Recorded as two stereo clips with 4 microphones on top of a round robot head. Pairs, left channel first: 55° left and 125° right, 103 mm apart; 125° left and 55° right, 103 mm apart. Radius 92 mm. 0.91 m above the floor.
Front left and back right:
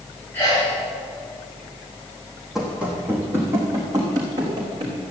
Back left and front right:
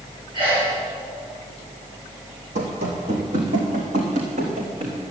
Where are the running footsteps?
40° right, 3 m; by 5.0 s 75° right, 4 m.